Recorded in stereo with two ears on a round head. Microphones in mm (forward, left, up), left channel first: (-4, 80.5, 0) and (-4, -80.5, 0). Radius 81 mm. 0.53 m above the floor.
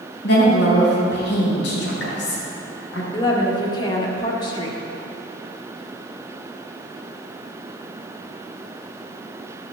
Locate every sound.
0.2 s a woman speaking: 75° left (ahead or behind), 4 m
3.1 s a woman speaking: 25° left (ahead or behind), 1.5 m